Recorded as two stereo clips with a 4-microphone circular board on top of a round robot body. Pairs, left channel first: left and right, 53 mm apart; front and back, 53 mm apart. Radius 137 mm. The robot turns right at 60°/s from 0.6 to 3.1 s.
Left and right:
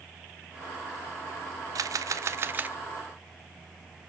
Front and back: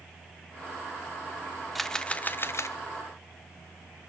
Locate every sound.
1.8 s a camera shutter: 85° right, 0.6 m; by 2.8 s 25° right, 0.6 m